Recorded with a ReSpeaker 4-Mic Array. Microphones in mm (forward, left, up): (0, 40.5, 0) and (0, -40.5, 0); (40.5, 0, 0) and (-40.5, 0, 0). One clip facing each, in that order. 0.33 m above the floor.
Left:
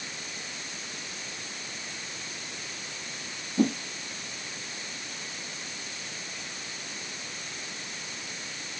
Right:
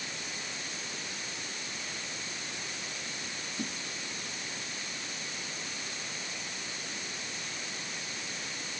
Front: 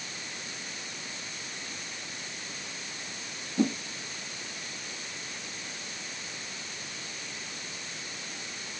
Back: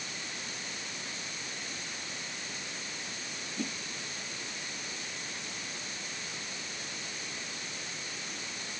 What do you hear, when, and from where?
3.6 s a whoosh: 55° left